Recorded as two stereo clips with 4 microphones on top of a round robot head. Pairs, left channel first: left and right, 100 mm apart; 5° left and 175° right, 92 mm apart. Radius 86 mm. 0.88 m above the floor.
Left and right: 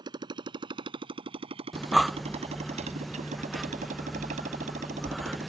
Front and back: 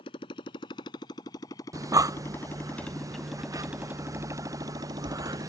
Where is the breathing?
Straight behind.